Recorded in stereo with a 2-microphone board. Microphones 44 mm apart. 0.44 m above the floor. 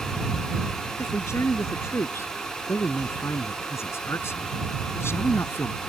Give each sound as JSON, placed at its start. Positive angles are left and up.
{"t": 1.0, "sound": "a man speaking", "side_deg": 75}